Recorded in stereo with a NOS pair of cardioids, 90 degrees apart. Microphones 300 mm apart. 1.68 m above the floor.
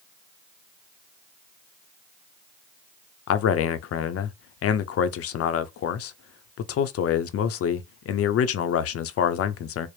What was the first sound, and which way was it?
A man speaking, 55° left.